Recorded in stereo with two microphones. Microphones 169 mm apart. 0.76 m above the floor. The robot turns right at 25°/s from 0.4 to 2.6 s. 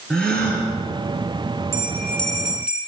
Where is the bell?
15° left (ahead or behind), 4.5 m; by 2.8 s 5° right (ahead or behind), 4.5 m.